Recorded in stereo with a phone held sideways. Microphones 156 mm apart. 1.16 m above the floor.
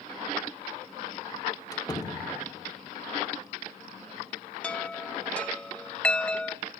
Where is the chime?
10° left (ahead or behind), 0.8 m.